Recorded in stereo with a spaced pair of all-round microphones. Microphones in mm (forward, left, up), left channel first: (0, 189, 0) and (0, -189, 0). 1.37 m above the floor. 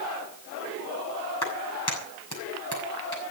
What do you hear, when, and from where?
1.4 s a clap: 80° left, 9 m